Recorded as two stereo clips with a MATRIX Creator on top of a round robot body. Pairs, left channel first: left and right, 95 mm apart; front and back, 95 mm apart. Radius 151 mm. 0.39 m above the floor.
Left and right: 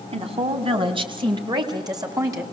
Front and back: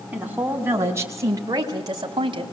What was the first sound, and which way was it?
A woman speaking, 105° right.